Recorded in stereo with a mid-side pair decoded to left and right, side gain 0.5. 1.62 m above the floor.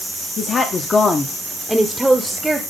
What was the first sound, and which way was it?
A woman speaking, 50° left.